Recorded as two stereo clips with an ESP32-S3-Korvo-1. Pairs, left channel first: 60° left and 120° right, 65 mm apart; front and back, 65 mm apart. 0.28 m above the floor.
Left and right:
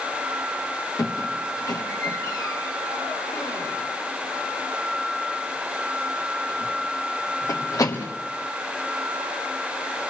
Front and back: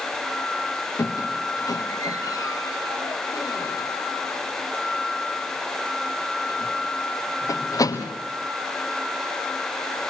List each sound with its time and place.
1.0 s a squeak: 30° left, 3 m